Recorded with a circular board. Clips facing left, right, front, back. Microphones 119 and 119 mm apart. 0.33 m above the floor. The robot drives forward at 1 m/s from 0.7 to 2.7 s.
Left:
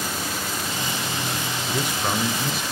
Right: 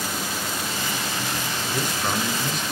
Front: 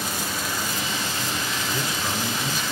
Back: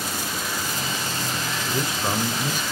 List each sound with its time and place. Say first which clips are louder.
1.7 s a man speaking: left 1 dB, back 5 dB; 155° left, 1.1 m; by 2.6 s 175° left, 1.6 m